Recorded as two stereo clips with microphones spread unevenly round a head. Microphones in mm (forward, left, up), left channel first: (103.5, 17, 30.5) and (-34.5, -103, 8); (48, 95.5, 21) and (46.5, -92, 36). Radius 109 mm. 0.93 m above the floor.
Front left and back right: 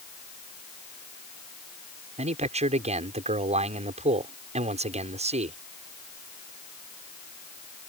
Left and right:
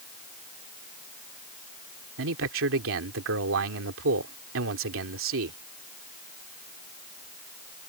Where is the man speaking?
85° right.